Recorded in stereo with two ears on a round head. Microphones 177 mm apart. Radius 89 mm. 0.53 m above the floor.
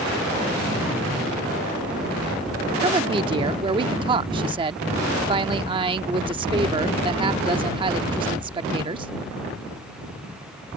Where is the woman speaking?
25° right (ahead or behind).